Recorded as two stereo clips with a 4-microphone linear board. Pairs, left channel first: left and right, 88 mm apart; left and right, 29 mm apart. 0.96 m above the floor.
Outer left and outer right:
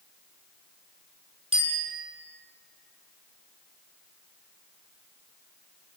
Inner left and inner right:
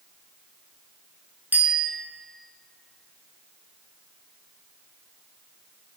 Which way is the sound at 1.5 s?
90° right.